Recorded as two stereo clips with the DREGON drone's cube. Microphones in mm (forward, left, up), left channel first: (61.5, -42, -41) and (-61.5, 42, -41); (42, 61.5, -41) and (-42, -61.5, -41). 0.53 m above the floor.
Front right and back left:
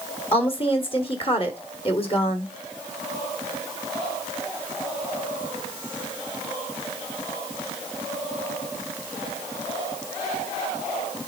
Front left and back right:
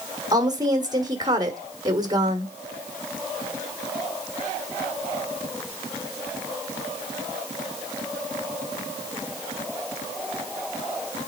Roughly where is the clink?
No clink in this recording.